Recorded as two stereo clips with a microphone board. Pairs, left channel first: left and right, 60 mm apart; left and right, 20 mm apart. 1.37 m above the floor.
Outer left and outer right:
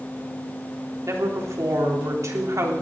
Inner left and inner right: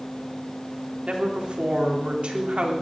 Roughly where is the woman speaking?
Right.